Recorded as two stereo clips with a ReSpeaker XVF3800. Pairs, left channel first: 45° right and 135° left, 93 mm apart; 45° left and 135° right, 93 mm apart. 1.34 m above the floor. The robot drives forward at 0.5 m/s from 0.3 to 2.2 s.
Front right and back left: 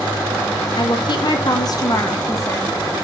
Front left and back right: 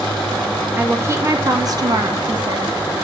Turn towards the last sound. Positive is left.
turn(degrees=-100)